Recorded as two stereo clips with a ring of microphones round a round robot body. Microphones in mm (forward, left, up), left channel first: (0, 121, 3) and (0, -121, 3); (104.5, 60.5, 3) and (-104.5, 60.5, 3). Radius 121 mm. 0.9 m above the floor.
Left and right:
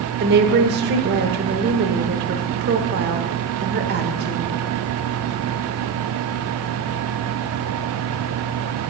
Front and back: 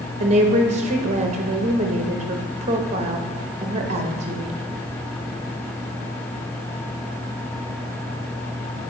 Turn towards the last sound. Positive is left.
turn(degrees=-125)